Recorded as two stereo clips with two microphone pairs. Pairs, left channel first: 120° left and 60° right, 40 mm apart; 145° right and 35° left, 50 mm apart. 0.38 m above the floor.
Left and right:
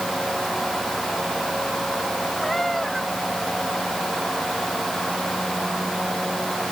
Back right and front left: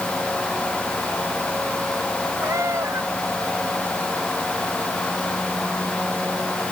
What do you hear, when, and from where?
2.4 s a cat meowing: 30° left